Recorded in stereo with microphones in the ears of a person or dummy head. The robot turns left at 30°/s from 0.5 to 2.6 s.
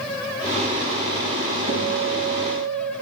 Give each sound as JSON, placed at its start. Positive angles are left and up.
{"t": 1.7, "sound": "a guitar", "side_deg": -65, "distance_m": 1.6}